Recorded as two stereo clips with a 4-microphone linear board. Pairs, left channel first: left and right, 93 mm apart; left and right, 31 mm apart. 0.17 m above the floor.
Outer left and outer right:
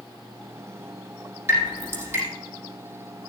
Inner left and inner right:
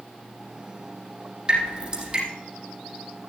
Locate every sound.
1.5 s dripping: 25° right (ahead or behind), 5.5 m